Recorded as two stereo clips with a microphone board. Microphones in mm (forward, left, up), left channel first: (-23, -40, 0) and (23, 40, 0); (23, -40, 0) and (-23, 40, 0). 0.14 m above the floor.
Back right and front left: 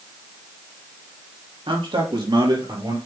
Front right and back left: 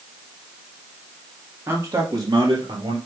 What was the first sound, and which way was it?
A man speaking, 60° left.